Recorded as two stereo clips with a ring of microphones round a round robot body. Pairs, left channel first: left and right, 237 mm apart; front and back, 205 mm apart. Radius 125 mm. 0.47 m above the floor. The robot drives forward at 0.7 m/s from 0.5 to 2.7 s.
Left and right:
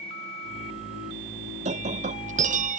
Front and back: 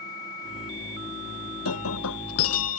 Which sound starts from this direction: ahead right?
Breaking glass, at 1.6 s.